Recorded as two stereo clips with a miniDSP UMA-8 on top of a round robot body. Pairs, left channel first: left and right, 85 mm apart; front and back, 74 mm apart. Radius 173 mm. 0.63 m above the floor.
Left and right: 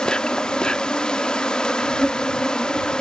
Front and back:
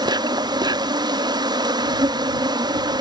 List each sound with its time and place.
0.0 s an insect: 170° left